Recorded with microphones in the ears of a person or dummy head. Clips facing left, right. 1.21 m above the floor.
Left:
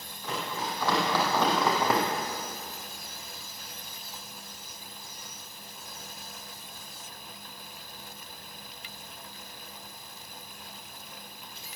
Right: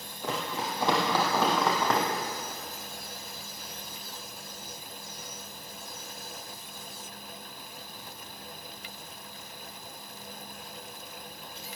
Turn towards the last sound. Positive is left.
turn(degrees=15)  # may be behind; listen again after turning